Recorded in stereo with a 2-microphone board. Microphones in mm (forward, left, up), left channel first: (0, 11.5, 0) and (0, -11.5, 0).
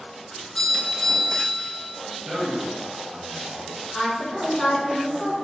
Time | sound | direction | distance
0.3 | a doorbell | 30° left (ahead or behind) | 1.9 m
2.2 | a man speaking | 30° right (ahead or behind) | 1.2 m
3.9 | a woman speaking | 20° left (ahead or behind) | 1.5 m